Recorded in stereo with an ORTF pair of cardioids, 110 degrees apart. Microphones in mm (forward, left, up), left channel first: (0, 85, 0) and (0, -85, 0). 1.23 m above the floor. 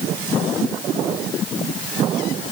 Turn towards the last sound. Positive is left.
No sound to turn to.